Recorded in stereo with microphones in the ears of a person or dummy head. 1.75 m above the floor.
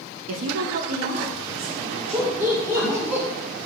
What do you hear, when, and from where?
0.3 s a woman speaking: 75° right (ahead or behind), 0.6 m; by 3.1 s 25° right (ahead or behind), 1.9 m
2.1 s laughter: 10° right (ahead or behind), 0.8 m